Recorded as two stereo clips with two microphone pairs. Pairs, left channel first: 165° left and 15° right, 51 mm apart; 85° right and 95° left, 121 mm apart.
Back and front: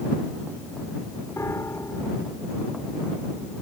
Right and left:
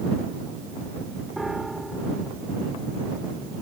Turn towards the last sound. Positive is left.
turn(degrees=-175)